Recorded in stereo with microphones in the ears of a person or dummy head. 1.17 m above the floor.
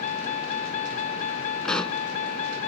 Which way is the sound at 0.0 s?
40° left (ahead or behind).